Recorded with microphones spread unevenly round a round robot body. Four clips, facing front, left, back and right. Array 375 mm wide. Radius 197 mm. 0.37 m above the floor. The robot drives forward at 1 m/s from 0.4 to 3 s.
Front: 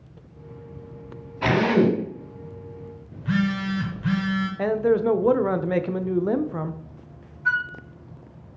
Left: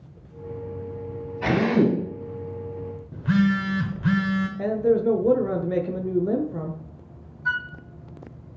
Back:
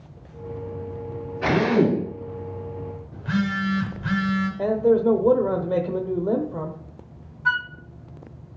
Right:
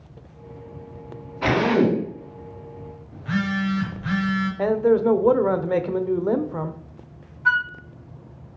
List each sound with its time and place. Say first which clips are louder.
1.4 s a drill: right 1 dB, even; 10° left, 4 m; by 2.0 s 15° left, 3.5 m
3.1 s a phone buzzing: left 4 dB, front 1 dB; 65° left, 1.0 m
4.6 s a man speaking: right 3 dB, back 2 dB; 100° right, 0.8 m
7.5 s a flute: right 6 dB, even; 115° right, 0.7 m